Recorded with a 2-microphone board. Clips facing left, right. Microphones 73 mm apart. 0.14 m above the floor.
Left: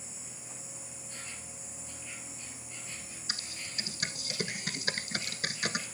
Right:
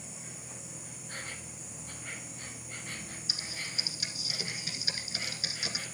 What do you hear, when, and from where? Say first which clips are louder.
0.0 s an insect: right 3 dB; 55° right (ahead or behind), 1.5 m
3.3 s typing on a keyboard: even; 50° left (ahead or behind), 1.2 m